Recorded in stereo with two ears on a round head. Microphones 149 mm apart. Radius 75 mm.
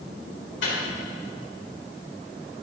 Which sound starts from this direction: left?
A microwave, at 0.6 s.